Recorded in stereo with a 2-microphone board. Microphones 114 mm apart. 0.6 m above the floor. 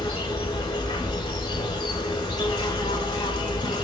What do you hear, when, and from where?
0.0 s an insect: 40° left (ahead or behind), 0.8 m